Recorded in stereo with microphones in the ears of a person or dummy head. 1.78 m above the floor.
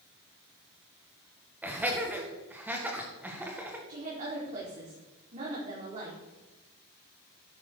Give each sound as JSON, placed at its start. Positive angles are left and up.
{"t": 1.6, "sound": "laughter", "side_deg": -10, "distance_m": 2.0}
{"t": 3.9, "sound": "a woman speaking", "side_deg": -45, "distance_m": 4.5}